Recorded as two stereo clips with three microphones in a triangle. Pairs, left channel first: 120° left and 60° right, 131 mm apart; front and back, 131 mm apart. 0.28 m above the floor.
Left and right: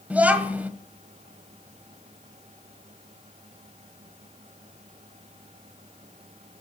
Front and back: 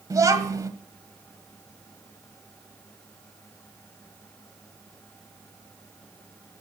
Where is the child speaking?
135° right, 1.3 m.